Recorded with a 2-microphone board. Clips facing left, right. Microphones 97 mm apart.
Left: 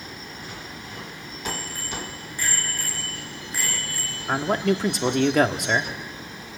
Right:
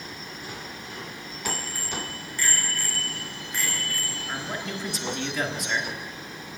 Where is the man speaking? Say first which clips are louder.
Left 12 dB; 55° left (ahead or behind), 1.3 m.